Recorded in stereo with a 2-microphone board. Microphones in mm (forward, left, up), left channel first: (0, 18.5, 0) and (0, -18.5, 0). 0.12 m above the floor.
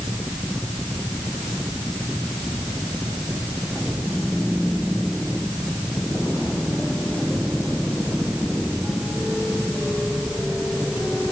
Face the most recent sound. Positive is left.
No sound to turn to.